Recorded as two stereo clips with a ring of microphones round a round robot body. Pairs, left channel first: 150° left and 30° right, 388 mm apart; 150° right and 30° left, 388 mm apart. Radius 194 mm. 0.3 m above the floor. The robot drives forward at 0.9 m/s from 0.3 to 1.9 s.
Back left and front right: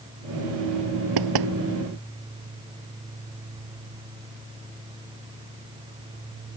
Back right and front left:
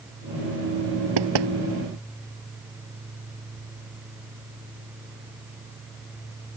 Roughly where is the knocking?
Ahead.